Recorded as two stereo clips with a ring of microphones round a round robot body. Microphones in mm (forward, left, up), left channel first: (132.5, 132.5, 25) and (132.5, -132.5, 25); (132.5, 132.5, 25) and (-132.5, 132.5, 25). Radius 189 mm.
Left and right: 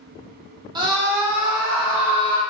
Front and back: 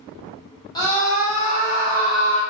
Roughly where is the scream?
Ahead right.